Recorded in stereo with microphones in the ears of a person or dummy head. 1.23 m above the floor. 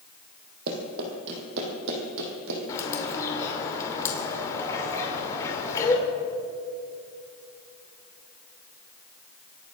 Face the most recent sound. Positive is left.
turn(degrees=20)  # may be behind; listen again after turning